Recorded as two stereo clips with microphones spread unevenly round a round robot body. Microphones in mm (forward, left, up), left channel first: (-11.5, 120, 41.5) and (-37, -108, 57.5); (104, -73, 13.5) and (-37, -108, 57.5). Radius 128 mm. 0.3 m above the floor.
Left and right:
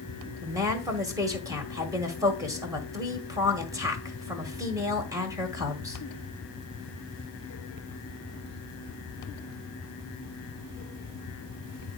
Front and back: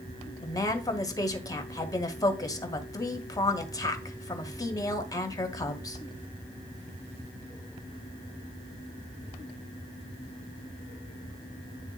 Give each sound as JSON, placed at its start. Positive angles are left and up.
{"t": 0.4, "sound": "a woman speaking", "azimuth_deg": -20, "distance_m": 1.7}